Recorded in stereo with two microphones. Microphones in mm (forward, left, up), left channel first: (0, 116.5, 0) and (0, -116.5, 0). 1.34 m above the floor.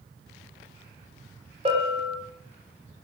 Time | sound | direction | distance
1.6 | a bell | 25° right (ahead or behind) | 4.5 m